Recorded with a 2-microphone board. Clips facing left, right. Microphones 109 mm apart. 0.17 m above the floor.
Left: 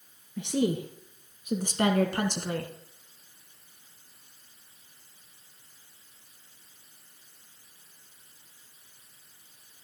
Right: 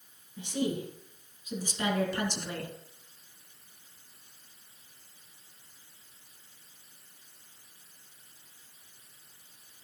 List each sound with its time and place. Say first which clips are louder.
0.4 s a woman speaking: left 4 dB; 65° left (ahead or behind), 2.5 m; by 2.7 s 35° left (ahead or behind), 1.6 m